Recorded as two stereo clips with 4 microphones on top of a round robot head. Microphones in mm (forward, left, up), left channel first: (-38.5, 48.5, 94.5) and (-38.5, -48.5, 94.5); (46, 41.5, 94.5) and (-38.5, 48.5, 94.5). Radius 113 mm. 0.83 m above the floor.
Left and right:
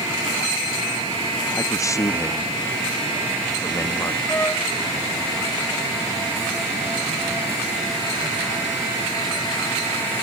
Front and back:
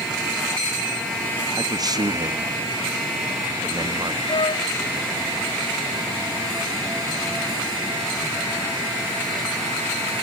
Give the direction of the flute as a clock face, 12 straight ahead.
11 o'clock.